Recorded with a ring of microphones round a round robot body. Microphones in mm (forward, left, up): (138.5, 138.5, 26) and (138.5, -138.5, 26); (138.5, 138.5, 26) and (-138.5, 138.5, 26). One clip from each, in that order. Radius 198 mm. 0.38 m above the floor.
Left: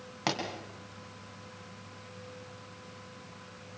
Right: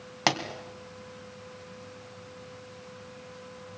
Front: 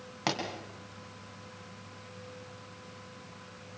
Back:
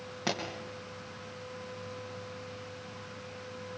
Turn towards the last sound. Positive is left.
turn(degrees=-75)